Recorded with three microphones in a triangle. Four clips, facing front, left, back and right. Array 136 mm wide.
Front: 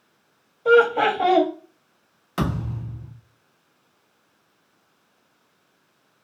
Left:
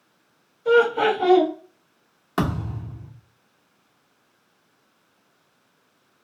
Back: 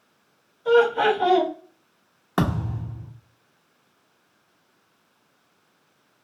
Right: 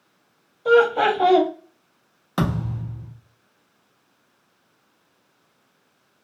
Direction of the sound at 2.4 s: 175° left.